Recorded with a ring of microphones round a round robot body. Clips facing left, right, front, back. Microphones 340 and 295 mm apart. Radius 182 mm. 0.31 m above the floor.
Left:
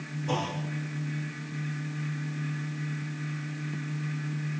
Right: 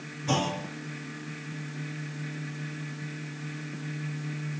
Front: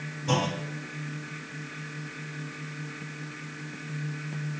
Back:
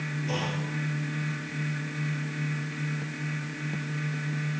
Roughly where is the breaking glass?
No breaking glass in this recording.